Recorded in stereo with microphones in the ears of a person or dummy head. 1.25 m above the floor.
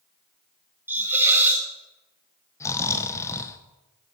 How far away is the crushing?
I don't hear crushing.